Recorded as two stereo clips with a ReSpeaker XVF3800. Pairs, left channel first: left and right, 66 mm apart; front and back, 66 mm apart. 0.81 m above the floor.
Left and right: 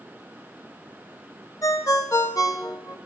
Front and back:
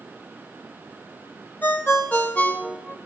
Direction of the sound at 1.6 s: 60° left.